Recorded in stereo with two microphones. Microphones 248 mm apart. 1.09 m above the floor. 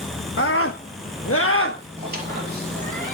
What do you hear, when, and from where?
0.4 s a scream: 55° left (ahead or behind), 1.1 m; by 1.8 s 50° left (ahead or behind), 1.3 m
2.0 s a squeak: 40° right (ahead or behind), 4.5 m